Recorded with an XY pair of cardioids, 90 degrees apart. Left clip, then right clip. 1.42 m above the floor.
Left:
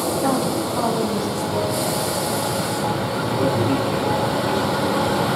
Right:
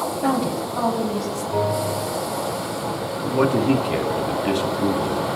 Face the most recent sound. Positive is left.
turn(degrees=-65)